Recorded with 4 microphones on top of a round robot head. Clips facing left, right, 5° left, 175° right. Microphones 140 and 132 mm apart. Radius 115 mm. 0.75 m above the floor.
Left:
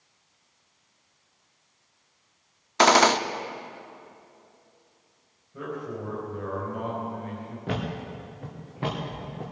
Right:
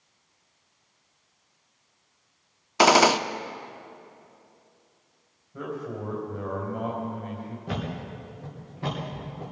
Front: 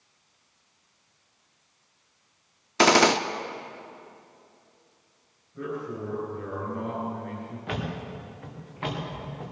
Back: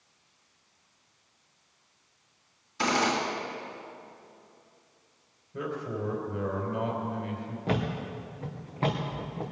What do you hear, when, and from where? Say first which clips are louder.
2.8 s a gunshot: right 1 dB, front 8 dB; 10° right, 0.6 m
5.5 s a man speaking: even, even; straight behind, 3.5 m
7.7 s a thud: left 3 dB, back 4 dB; 130° left, 3.5 m